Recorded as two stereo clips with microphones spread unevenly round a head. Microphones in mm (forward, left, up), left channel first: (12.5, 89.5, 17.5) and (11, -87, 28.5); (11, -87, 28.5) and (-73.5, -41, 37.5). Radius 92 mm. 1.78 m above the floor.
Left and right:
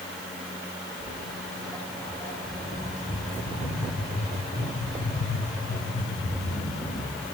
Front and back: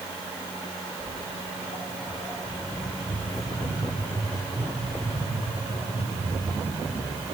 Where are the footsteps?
20° right, 3 m; by 7.2 s 105° left, 6 m.